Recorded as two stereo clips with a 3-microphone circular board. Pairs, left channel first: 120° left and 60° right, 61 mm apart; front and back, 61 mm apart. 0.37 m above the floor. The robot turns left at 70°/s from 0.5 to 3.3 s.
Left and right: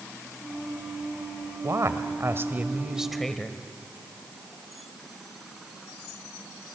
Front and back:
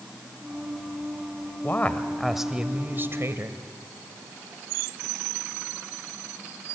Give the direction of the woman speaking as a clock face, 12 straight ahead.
1 o'clock.